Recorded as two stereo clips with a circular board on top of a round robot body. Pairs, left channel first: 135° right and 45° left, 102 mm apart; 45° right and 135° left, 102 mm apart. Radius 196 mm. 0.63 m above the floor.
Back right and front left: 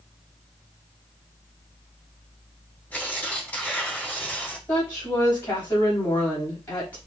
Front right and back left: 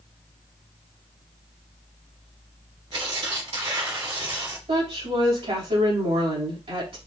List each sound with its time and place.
2.9 s tearing paper: 155° left, 3.5 m
4.7 s a woman speaking: 155° left, 4.5 m